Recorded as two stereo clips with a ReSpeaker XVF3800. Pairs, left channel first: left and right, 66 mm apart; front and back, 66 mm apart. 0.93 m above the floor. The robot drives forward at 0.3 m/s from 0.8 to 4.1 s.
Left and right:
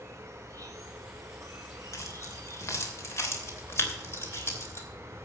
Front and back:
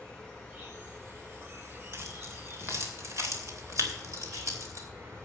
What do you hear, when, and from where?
0.0 s an insect: 130° right, 4 m; by 5.2 s 140° right, 4.5 m
1.9 s keys jangling: 130° left, 2.5 m; by 4.9 s 140° left, 3 m